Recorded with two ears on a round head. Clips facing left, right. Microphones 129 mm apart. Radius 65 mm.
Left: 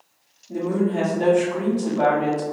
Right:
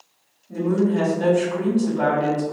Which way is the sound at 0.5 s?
20° left (ahead or behind).